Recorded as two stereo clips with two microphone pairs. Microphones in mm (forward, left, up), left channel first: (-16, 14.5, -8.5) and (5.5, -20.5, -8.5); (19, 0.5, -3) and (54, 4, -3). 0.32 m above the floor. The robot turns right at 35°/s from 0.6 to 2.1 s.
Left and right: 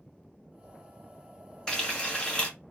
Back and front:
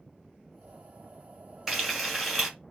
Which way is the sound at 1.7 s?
70° left.